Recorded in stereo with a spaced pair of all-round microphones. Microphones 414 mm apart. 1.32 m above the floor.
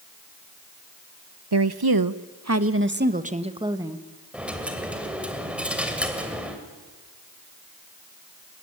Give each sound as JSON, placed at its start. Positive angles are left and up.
{"t": 1.5, "sound": "a woman speaking", "side_deg": -70, "distance_m": 0.9}
{"t": 4.3, "sound": "a dropped coin", "side_deg": -5, "distance_m": 2.5}